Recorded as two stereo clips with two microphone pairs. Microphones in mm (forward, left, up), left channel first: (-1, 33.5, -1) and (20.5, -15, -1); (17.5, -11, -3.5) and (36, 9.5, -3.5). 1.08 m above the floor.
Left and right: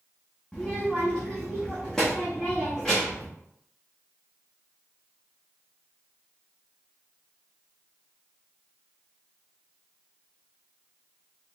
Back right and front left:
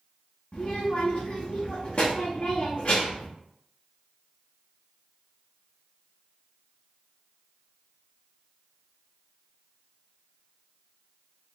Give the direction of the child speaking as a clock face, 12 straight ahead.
5 o'clock.